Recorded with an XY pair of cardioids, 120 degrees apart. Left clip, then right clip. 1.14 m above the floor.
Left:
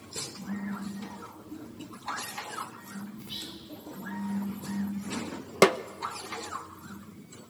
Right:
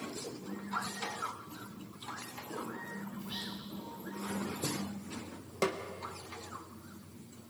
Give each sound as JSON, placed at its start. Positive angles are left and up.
{"t": 3.2, "sound": "whispering", "azimuth_deg": 30, "distance_m": 4.5}
{"t": 5.6, "sound": "a snare drum", "azimuth_deg": 65, "distance_m": 0.5}